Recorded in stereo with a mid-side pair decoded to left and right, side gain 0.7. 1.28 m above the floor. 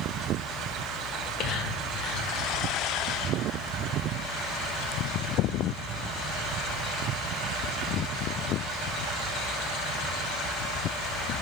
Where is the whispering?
60° left, 1.7 m.